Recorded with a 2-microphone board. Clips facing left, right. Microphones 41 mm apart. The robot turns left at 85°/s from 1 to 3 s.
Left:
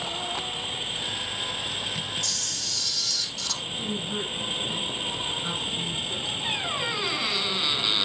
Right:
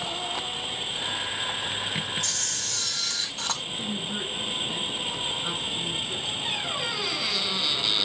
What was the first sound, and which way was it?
A camera shutter, 55° right.